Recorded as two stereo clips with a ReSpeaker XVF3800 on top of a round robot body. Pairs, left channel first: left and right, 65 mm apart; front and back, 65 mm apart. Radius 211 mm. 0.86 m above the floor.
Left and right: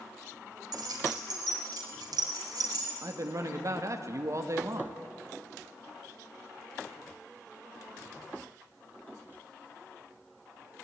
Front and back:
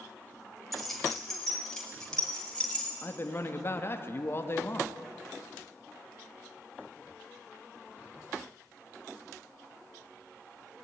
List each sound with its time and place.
0.7 s keys jangling: 90° right, 5 m; by 2.9 s 75° right, 7 m
3.0 s a man speaking: 50° right, 2 m